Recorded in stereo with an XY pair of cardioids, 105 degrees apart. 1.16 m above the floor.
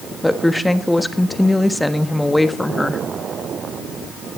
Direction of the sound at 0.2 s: 5° left.